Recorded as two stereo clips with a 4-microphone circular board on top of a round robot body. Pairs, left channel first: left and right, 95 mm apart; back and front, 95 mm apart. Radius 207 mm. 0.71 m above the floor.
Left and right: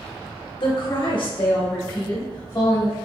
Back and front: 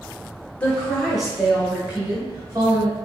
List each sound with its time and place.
0.6 s a woman speaking: 105° left, 1.6 m; by 3.0 s 50° left, 1.7 m